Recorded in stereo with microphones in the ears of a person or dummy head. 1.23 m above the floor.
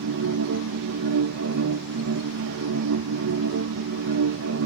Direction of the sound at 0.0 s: 70° right (ahead or behind).